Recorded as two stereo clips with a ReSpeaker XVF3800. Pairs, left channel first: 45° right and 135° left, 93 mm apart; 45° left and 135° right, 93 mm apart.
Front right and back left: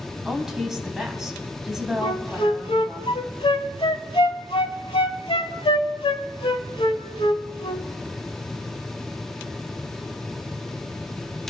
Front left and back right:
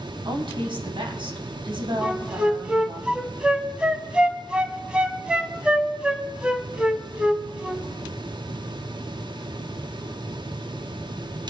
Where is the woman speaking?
140° right, 2 m.